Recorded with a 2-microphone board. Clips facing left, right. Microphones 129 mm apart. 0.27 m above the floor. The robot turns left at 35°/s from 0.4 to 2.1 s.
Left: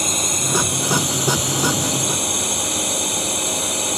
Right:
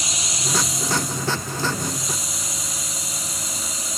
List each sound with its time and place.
0.0 s a drone: 50° left (ahead or behind); by 4.0 s 70° left (ahead or behind)